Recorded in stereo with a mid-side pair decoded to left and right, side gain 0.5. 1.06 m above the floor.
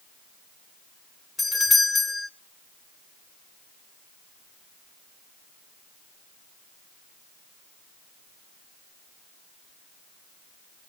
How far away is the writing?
I don't hear writing.